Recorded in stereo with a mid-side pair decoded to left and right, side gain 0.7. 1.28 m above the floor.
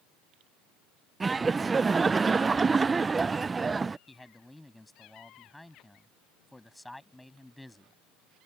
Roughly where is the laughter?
Ahead.